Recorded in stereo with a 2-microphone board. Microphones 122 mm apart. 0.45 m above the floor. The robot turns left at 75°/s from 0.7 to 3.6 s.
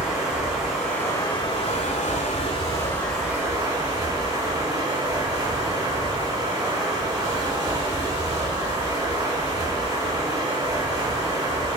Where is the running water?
175° right, 1.6 m; by 11.8 s 35° right, 1.6 m.